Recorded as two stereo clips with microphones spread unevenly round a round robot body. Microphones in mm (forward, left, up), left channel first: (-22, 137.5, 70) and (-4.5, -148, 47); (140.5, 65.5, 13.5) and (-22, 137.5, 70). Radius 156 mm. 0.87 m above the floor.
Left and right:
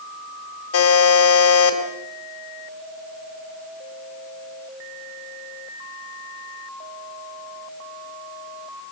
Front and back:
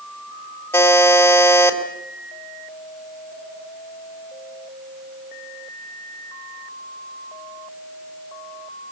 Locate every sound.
0.7 s a buzzer: 50° left, 3.5 m